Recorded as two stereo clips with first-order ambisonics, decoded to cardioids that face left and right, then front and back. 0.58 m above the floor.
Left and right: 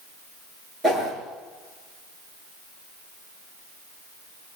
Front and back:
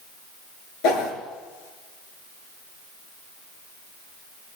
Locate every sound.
0.8 s a whoosh: 15° right, 6.5 m